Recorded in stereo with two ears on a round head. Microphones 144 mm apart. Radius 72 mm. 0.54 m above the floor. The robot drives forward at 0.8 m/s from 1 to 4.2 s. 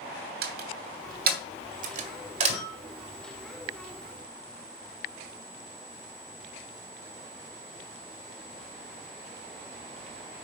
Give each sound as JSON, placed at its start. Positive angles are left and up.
{"t": 0.4, "sound": "a door slam", "side_deg": -65, "distance_m": 1.6}
{"t": 2.5, "sound": "a bell", "side_deg": -15, "distance_m": 3.5}